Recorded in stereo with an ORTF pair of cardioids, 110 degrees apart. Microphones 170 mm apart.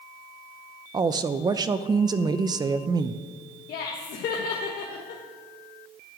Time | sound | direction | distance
0.9 | a woman speaking | 25° right | 0.5 m
3.7 | laughter | 70° left | 1.3 m